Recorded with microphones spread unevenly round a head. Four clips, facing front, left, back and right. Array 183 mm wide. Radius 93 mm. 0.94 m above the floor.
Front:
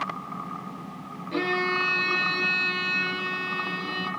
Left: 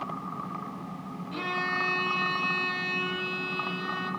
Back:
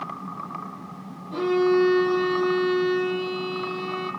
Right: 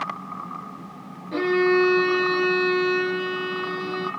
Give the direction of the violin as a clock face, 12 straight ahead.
3 o'clock.